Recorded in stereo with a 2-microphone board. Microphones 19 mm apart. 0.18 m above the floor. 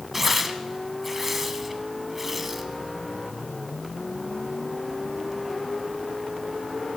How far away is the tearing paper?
About 0.9 m.